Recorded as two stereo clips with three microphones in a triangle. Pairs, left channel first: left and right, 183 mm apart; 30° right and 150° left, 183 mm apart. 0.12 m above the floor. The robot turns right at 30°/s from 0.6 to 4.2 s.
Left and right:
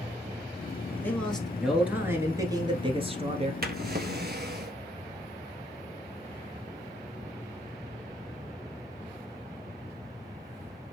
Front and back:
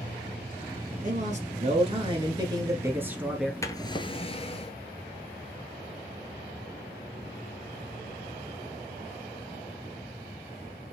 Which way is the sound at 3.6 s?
100° right.